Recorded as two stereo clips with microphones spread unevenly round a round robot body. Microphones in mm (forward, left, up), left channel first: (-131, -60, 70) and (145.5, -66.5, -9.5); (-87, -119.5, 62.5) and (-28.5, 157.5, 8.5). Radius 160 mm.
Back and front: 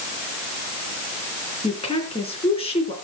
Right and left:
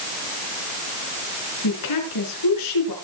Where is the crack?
I don't hear a crack.